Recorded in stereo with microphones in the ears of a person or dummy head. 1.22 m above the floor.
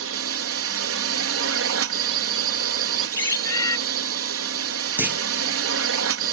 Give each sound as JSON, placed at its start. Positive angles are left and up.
{"t": 0.0, "sound": "a drone", "side_deg": -60}
{"t": 3.2, "sound": "a bird", "side_deg": 25}
{"t": 5.0, "sound": "a clunk", "side_deg": -5}